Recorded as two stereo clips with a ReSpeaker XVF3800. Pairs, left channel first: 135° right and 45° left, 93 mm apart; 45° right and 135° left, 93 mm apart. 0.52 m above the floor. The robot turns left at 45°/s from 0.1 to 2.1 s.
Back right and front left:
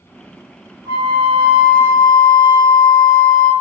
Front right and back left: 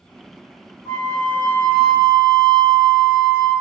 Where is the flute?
15° left, 0.8 m; by 3.5 s 40° right, 0.8 m.